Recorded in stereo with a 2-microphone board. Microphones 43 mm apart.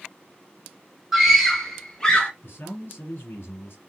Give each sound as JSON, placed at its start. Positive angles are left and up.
{"t": 1.1, "sound": "a scream", "side_deg": -5, "distance_m": 2.5}
{"t": 2.4, "sound": "a man speaking", "side_deg": 55, "distance_m": 3.0}